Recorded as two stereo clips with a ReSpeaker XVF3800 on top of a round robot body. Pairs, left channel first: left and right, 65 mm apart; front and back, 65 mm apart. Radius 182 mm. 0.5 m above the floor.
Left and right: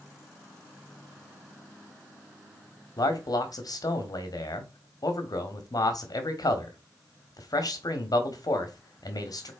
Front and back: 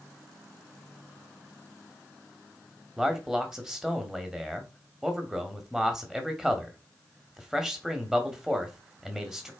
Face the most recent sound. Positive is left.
turn(degrees=100)